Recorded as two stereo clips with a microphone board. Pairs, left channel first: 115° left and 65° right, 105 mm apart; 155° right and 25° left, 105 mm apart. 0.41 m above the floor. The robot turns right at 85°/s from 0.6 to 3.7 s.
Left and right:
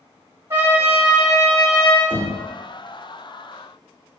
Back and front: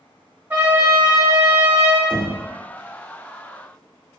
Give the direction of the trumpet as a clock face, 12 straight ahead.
1 o'clock.